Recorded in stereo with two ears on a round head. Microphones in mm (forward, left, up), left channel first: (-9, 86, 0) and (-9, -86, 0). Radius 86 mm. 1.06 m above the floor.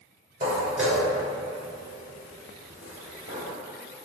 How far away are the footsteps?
About 1.1 m.